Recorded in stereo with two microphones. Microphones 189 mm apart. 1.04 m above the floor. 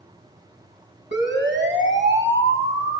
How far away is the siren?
About 8.5 m.